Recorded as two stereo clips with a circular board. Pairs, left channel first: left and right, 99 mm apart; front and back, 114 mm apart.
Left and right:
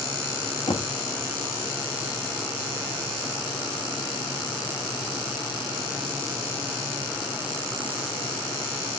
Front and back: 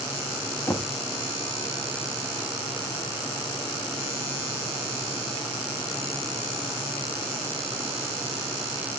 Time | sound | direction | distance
0.7 | knocking | 75° left | 2.0 m